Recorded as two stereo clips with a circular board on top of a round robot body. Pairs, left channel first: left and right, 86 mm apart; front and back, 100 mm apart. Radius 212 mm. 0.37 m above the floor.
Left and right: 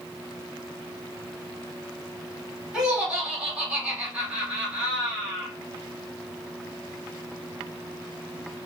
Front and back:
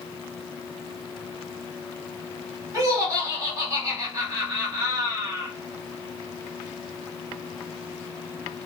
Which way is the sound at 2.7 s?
160° right.